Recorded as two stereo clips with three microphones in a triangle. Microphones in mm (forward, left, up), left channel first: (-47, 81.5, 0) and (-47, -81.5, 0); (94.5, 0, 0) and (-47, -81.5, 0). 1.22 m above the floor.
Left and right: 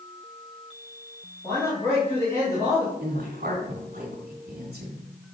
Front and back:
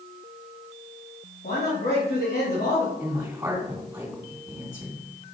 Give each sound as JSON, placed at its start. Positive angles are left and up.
{"t": 1.4, "sound": "a man speaking", "azimuth_deg": 20, "distance_m": 3.0}
{"t": 3.0, "sound": "a woman speaking", "azimuth_deg": -75, "distance_m": 3.0}